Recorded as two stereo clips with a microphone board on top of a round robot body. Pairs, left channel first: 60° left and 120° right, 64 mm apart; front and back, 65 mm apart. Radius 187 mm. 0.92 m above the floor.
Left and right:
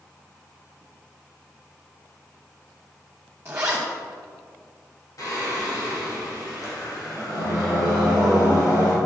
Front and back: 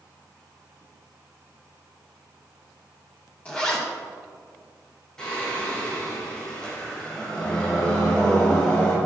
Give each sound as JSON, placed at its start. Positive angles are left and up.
{"t": 3.5, "sound": "a zipper", "azimuth_deg": -65, "distance_m": 1.0}
{"t": 5.2, "sound": "singing", "azimuth_deg": 80, "distance_m": 3.0}